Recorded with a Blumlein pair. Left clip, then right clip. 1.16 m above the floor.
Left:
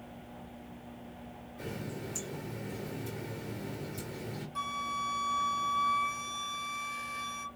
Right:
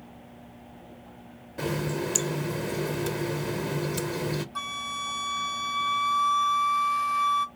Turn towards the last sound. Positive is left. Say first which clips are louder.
# right 2 dB
turn(degrees=-15)